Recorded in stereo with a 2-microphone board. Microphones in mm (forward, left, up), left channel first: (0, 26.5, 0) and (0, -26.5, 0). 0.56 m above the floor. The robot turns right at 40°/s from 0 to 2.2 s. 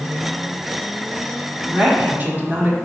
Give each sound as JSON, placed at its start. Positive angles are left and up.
{"t": 1.7, "sound": "a woman speaking", "side_deg": -15, "distance_m": 1.1}